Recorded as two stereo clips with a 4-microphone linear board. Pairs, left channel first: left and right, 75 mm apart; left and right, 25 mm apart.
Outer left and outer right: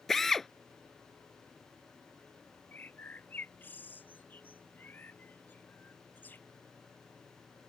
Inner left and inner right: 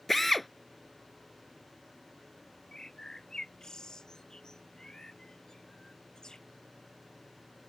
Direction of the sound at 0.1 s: 5° left (ahead or behind).